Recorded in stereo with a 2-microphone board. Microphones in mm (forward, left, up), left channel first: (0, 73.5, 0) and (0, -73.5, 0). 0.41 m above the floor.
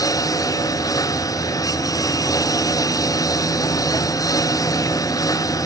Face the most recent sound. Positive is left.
turn(degrees=25)  # may be behind; listen again after turning